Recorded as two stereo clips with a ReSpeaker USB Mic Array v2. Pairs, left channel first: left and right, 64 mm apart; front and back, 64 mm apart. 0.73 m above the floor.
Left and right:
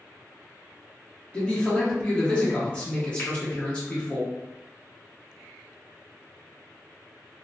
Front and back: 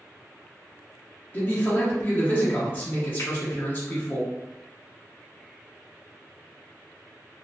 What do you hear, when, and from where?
1.3 s a man speaking: 30° left, 0.9 m
3.2 s a finger snap: 35° left, 1.6 m